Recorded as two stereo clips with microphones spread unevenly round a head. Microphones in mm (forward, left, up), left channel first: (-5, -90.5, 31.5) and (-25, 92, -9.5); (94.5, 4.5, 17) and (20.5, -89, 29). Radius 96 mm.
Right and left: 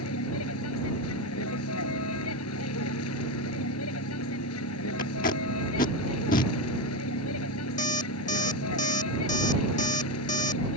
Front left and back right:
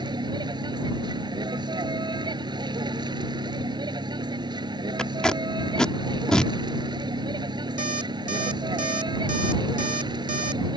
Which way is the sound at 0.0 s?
75° right.